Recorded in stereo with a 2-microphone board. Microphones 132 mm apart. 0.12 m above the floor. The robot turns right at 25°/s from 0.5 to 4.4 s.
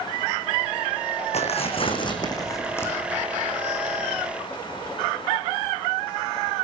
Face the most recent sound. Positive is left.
turn(degrees=-160)